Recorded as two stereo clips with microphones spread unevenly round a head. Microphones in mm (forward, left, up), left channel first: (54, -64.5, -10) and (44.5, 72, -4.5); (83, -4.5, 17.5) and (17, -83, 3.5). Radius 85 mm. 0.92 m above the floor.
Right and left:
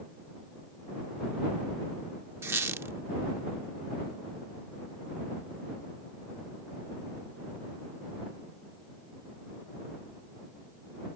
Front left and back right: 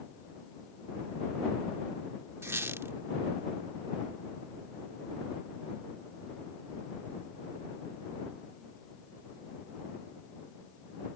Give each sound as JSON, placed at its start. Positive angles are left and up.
{"t": 2.4, "sound": "a squeak", "azimuth_deg": 160}